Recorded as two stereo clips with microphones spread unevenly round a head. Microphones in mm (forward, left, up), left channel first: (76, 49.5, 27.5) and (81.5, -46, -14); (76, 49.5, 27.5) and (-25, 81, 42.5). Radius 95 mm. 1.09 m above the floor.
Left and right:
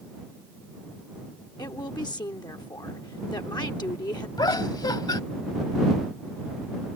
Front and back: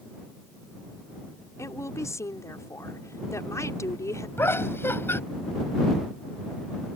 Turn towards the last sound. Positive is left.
turn(degrees=50)